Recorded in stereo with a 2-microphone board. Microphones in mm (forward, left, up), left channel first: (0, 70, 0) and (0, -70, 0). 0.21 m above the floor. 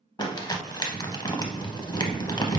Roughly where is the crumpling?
Left.